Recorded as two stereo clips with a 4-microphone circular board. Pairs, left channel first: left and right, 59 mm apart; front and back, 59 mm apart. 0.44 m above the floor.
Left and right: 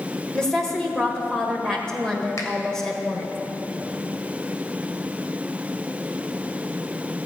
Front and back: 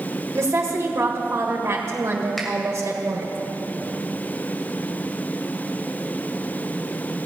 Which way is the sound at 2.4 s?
90° left.